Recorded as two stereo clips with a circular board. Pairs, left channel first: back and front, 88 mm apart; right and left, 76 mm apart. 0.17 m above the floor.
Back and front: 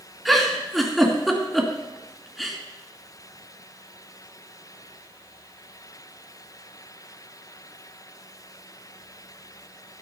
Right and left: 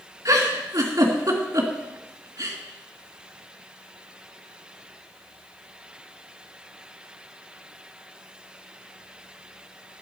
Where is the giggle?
90° left, 2 m.